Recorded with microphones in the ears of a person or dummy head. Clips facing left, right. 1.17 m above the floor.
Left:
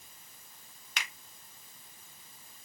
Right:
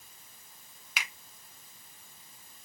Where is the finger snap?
5° right (ahead or behind), 0.8 m.